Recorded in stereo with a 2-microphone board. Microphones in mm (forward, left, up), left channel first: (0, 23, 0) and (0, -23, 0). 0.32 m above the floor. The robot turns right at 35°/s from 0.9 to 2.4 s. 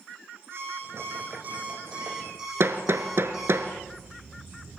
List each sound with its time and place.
0.5 s an alarm clock: 60° right, 9.5 m; by 3.6 s 10° right, 9.5 m
2.6 s hammering: 65° right (ahead or behind), 1.5 m